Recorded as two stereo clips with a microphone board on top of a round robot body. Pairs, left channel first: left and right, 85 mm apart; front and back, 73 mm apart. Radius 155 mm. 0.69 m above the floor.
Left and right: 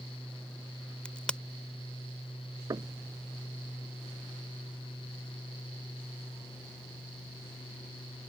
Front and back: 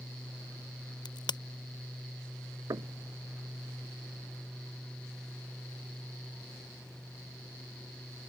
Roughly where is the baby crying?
I don't hear a baby crying.